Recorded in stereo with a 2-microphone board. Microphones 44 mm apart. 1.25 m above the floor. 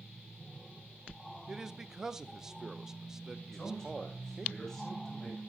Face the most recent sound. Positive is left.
turn(degrees=10)  # may be behind; listen again after turning